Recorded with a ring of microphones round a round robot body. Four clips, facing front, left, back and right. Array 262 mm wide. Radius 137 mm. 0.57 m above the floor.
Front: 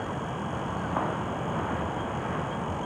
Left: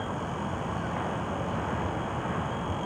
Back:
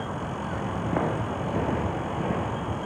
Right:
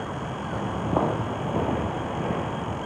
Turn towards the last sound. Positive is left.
turn(degrees=-135)